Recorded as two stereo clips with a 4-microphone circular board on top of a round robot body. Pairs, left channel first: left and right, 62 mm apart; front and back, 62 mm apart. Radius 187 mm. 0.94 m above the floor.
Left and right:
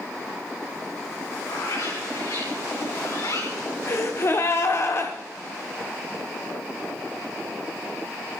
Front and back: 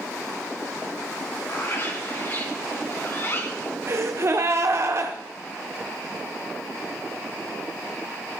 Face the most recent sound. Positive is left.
turn(degrees=135)